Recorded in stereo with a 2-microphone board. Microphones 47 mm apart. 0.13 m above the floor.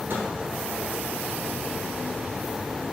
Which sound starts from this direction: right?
A microwave, at 0.1 s.